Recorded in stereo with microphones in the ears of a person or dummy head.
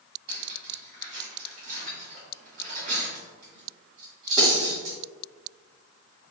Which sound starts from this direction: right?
Cutlery clinking, at 0.3 s.